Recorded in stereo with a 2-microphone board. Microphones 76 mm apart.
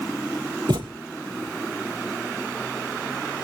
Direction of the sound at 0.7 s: 70° right (ahead or behind).